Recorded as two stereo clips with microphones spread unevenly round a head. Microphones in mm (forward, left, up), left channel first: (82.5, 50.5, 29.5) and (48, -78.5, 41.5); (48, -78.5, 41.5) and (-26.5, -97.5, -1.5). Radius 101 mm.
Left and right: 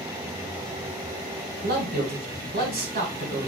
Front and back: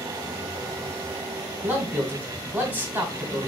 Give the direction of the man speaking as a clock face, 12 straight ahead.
3 o'clock.